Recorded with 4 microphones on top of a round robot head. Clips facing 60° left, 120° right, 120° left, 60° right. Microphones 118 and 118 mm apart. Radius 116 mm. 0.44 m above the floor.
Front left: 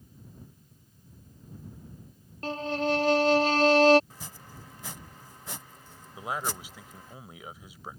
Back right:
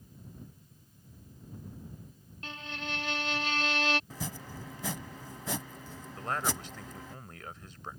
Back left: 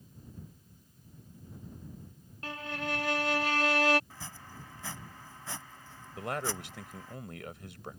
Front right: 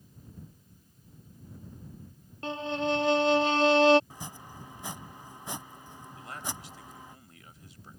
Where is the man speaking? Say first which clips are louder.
Even, back left 7 dB; 140° left.